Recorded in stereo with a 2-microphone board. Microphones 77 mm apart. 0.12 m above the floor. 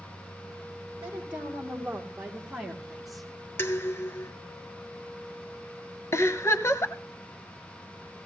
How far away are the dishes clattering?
About 0.9 m.